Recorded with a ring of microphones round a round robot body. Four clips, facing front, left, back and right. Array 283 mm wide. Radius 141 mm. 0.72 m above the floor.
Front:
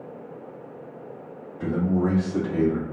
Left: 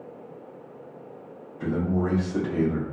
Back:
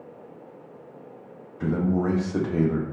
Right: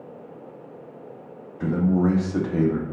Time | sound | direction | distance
1.6 | a man speaking | 135° right | 0.6 m